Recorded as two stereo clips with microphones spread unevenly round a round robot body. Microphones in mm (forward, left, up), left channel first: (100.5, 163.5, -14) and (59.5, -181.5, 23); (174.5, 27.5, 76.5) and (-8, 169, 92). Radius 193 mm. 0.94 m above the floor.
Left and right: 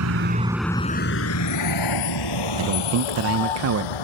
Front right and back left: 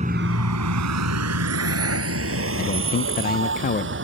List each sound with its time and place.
0.0 s a vehicle: 145° right; by 4.0 s 105° left
2.6 s a man speaking: 60° right